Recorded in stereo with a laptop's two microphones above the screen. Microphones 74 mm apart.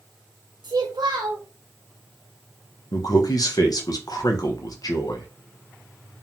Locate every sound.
0.6 s a child speaking: 70° right (ahead or behind), 0.9 m
2.9 s a man speaking: 55° left (ahead or behind), 0.6 m